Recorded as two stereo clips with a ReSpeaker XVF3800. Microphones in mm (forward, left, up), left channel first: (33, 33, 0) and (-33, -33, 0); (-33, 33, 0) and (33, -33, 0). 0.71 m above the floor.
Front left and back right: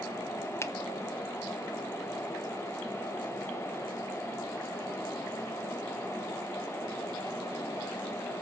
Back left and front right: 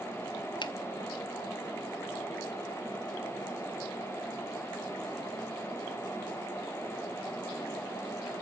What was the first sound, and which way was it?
A finger snap, 105° left.